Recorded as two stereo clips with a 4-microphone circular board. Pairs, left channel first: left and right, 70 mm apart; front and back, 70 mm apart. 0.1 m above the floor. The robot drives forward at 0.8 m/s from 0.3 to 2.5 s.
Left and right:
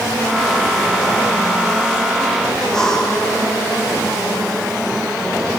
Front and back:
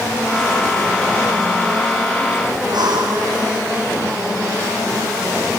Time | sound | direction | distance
2.7 | breathing | 175° left | 4 m